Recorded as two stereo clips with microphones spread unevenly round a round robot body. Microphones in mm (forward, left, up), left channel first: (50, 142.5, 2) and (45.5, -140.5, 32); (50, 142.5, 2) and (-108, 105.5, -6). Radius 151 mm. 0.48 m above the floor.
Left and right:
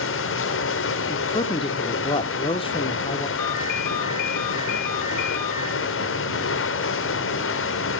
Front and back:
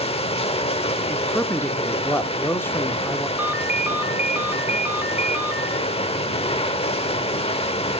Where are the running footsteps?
No running footsteps in this recording.